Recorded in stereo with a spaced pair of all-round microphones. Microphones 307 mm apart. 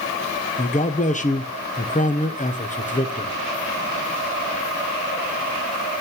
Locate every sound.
0.6 s a man speaking: 25° left (ahead or behind), 0.8 m